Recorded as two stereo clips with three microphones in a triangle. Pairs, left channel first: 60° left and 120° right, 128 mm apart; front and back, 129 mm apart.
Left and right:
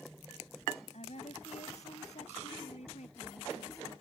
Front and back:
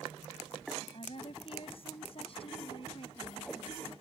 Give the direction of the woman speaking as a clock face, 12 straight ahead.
11 o'clock.